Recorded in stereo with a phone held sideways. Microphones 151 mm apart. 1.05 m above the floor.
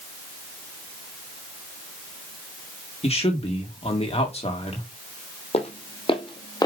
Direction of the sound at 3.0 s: 40° left (ahead or behind).